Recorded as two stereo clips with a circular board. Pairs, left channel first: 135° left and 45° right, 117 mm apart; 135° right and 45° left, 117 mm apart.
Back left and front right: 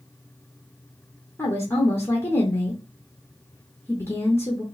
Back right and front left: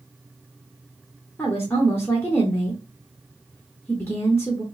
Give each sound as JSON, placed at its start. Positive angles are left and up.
{"t": 1.4, "sound": "a woman speaking", "azimuth_deg": 180, "distance_m": 0.9}